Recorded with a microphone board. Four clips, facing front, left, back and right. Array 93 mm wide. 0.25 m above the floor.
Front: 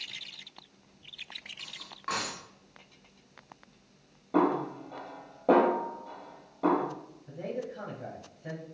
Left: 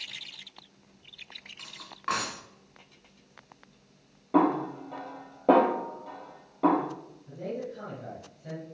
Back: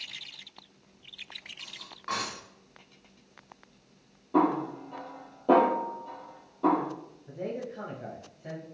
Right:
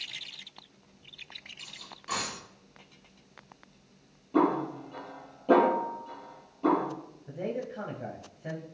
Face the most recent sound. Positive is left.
turn(degrees=-90)